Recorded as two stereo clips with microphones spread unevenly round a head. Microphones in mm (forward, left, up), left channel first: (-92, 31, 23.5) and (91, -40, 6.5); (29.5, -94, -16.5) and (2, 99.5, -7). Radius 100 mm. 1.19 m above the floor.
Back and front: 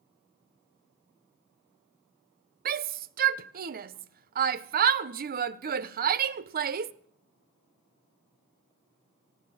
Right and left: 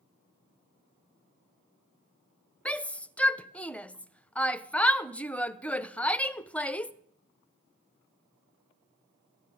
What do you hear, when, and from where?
2.6 s a shout: straight ahead, 0.6 m